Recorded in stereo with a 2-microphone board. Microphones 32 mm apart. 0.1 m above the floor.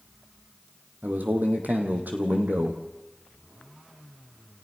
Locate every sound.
1.0 s a man speaking: 65° right (ahead or behind), 3.5 m